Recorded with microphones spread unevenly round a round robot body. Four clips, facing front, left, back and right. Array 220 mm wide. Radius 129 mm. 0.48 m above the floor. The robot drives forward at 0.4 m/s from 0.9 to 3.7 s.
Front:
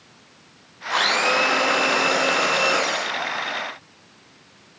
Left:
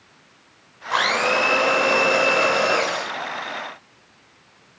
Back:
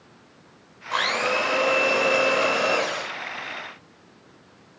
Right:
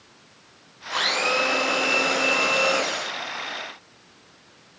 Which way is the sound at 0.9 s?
90° left.